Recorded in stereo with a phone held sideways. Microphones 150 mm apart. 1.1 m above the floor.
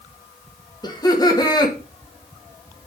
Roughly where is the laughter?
Left.